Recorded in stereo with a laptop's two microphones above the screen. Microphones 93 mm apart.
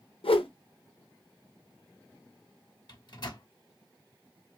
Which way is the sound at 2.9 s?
50° left (ahead or behind).